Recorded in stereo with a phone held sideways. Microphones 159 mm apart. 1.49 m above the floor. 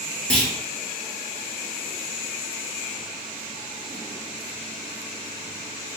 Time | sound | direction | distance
0.3 | a clunk | 5° left (ahead or behind) | 1.1 m